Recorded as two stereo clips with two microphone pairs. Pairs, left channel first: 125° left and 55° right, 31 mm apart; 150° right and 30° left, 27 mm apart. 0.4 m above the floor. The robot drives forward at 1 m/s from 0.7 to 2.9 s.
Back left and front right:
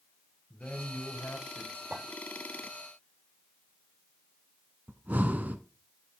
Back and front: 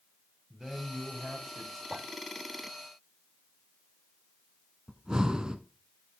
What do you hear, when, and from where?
0.5 s a man speaking: 100° left, 2 m; by 1.8 s 130° left, 2.5 m
1.9 s a clink: 65° right, 5.5 m
4.9 s breathing: 30° right, 0.8 m